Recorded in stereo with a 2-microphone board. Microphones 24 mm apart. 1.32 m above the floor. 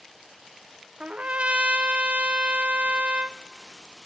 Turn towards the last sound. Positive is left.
turn(degrees=-60)  # may be behind; listen again after turning